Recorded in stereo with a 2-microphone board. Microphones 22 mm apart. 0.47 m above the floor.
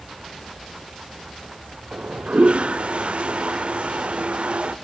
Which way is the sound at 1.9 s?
50° right (ahead or behind).